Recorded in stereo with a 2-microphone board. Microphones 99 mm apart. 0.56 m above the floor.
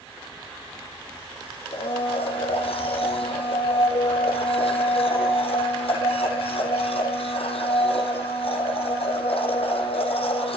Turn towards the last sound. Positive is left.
turn(degrees=70)  # may be behind; listen again after turning